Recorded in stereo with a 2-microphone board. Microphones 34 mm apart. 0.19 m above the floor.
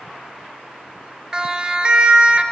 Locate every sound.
1.3 s a siren: 15° right (ahead or behind), 4 m; by 2.4 s 30° right (ahead or behind), 3.5 m